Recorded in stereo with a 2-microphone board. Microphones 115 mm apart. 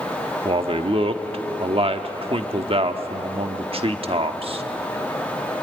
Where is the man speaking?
55° right (ahead or behind), 1.2 m.